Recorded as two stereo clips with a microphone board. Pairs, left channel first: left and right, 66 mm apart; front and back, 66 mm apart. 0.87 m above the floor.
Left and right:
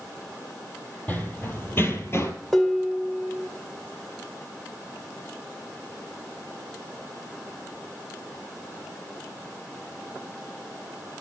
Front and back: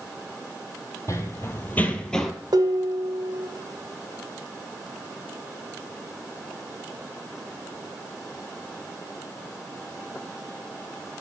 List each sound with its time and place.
1.1 s running footsteps: 30° left, 1.4 m; by 2.3 s 85° left, 1.0 m
2.5 s dishes clattering: 175° left, 1.7 m